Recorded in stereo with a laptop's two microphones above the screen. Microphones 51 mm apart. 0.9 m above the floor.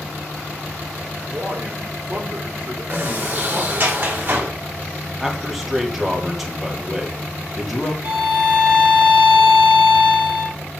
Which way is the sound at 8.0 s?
35° right (ahead or behind).